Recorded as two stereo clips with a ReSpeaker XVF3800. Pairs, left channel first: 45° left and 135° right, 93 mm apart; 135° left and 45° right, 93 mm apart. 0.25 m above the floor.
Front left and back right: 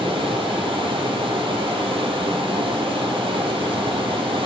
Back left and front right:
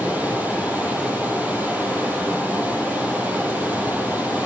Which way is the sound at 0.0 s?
115° right.